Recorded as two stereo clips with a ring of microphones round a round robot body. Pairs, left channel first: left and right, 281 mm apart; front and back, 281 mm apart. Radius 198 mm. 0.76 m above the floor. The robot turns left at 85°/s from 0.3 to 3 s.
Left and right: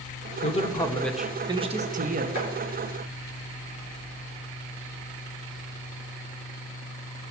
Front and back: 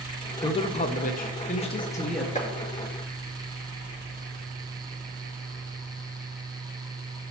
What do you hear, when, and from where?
0.4 s a man speaking: 60° left, 0.9 m; by 2.2 s 95° right, 0.9 m
2.4 s chopping: 65° left, 3.5 m; by 2.5 s 55° left, 3.5 m